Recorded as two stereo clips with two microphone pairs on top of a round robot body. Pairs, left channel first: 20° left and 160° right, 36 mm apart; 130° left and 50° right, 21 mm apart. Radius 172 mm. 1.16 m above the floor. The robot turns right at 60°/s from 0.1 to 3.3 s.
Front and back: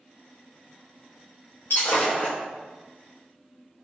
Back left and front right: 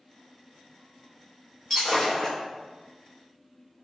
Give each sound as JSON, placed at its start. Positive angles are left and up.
{"t": 1.7, "sound": "breaking glass", "azimuth_deg": 40, "distance_m": 0.9}